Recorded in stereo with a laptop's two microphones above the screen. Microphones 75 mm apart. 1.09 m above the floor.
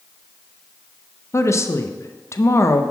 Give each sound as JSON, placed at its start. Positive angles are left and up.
{"t": 1.3, "sound": "a woman speaking", "side_deg": 40, "distance_m": 0.6}